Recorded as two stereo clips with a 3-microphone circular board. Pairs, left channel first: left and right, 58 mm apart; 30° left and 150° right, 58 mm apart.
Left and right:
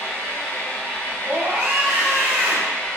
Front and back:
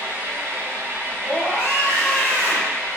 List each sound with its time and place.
0.0 s an engine running: 160° left, 1.0 m
1.2 s a scream: 30° right, 0.8 m